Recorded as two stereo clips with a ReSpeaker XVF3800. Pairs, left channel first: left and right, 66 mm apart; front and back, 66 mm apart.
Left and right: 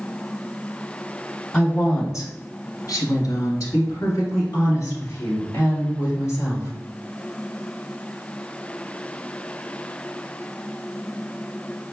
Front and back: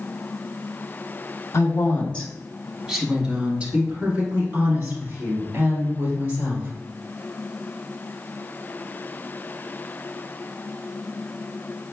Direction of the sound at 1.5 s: 30° left.